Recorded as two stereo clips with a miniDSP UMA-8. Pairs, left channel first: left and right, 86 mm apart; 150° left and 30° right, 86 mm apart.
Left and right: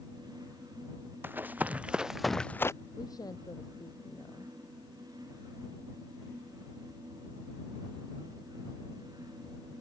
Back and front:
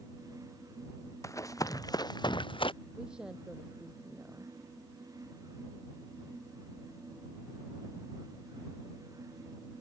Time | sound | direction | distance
1.2 | running footsteps | 155° right | ?
3.0 | a woman speaking | 50° left | ?